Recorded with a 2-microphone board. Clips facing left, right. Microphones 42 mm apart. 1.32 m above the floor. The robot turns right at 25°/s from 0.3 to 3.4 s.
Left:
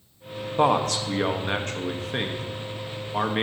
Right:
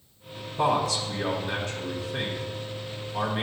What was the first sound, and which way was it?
A man speaking, 65° left.